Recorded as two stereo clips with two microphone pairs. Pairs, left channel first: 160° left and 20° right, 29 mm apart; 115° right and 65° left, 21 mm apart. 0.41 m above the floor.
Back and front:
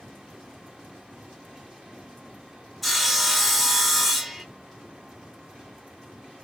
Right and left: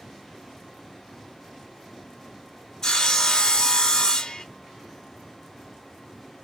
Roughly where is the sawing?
Right.